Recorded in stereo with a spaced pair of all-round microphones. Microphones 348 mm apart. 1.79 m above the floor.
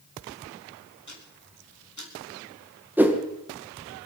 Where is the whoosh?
5° right (ahead or behind), 1.7 m.